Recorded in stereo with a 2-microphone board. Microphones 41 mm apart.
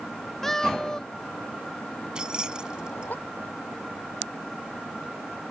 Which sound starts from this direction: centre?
A cat meowing, at 0.4 s.